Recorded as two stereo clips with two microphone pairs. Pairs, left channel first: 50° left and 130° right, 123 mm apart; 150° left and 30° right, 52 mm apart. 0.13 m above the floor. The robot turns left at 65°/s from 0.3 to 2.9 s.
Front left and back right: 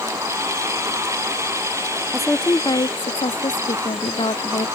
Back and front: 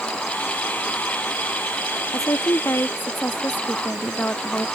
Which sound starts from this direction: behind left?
A woman speaking, at 2.1 s.